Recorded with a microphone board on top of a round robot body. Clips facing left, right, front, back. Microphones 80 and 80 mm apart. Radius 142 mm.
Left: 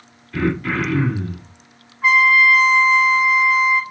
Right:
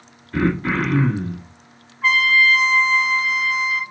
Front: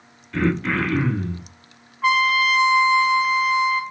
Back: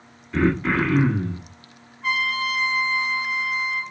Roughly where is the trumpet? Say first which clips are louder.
Left 3 dB, front 7 dB; ahead.